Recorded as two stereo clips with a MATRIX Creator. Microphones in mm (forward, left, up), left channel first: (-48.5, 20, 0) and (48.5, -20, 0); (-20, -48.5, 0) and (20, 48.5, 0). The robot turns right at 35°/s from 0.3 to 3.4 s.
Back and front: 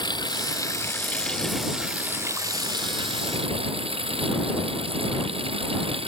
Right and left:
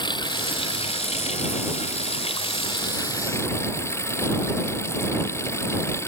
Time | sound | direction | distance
0.0 | running water | 155° right | ?